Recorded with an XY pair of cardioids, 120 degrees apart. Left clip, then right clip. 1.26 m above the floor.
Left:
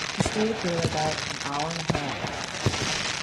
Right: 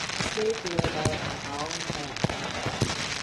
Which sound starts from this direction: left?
A woman speaking, at 0.2 s.